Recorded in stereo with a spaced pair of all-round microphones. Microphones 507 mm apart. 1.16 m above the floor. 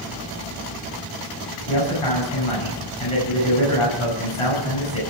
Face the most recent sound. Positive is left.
turn(degrees=70)  # may be behind; listen again after turning